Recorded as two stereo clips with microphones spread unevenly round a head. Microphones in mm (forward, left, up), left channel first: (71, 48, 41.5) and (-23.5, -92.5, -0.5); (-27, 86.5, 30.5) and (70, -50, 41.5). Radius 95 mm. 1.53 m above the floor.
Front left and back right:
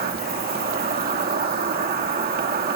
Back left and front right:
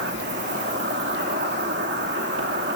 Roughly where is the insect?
Right.